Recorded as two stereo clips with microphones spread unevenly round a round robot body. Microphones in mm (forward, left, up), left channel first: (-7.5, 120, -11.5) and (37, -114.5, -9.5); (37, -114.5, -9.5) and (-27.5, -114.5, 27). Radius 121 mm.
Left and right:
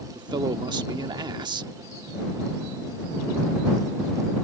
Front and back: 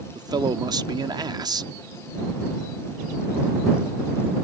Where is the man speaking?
150° right.